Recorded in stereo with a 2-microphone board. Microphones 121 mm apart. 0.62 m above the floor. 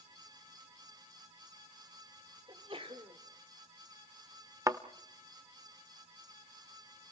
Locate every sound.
2.5 s a sneeze: 50° right (ahead or behind), 2 m
4.7 s a thud: 25° right (ahead or behind), 0.9 m